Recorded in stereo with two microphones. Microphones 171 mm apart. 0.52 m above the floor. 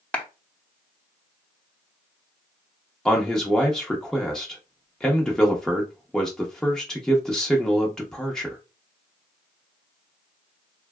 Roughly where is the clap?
Centre.